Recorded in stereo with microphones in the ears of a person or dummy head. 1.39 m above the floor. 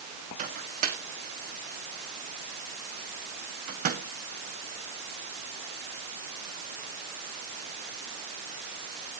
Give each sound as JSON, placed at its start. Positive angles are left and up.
{"t": 0.4, "sound": "a microwave", "side_deg": -45, "distance_m": 1.8}